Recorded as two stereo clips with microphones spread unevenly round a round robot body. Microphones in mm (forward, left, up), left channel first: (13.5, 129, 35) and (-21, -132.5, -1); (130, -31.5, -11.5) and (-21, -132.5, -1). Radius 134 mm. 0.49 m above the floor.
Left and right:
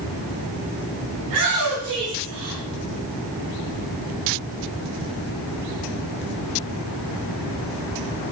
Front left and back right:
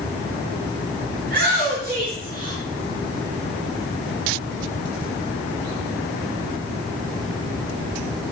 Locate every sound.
1.2 s a shout: 125° right, 5.5 m; by 2.6 s 110° right, 5 m